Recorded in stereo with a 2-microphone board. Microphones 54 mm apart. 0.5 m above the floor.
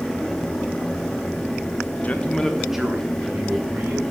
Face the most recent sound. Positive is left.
turn(degrees=-40)  # may be behind; listen again after turning